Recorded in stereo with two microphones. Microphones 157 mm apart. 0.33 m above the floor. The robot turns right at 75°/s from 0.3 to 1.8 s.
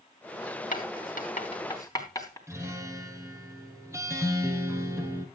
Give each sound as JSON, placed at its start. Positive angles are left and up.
{"t": 0.7, "sound": "writing", "side_deg": 60, "distance_m": 3.0}
{"t": 2.5, "sound": "a guitar", "side_deg": -15, "distance_m": 3.0}